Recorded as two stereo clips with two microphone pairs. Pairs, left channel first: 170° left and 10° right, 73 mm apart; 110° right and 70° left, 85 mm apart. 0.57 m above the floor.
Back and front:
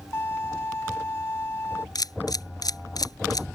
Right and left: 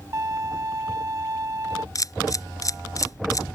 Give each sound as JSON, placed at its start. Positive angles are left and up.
{"t": 0.1, "sound": "a violin", "azimuth_deg": 115}
{"t": 1.9, "sound": "a camera shutter", "azimuth_deg": -160}